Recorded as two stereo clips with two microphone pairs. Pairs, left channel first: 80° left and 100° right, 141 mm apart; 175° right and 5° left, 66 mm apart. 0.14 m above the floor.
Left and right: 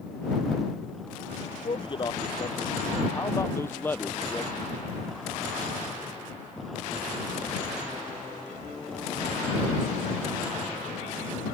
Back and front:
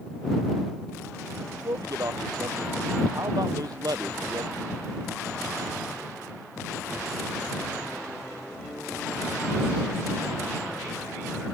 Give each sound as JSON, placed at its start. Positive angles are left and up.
{"t": 1.5, "sound": "a man speaking", "azimuth_deg": 30}